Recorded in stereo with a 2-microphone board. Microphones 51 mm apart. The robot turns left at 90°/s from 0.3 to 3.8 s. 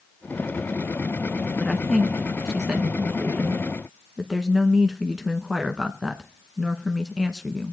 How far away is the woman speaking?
About 1.1 m.